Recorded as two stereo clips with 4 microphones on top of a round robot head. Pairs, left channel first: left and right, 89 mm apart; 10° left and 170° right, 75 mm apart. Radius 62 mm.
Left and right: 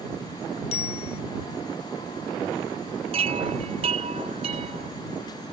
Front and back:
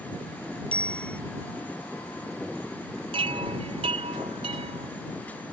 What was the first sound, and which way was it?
A bicycle bell, 85° left.